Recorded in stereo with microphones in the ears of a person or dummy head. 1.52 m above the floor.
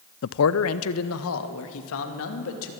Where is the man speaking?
70° left (ahead or behind), 0.6 m; by 2.7 s 80° left, 3 m.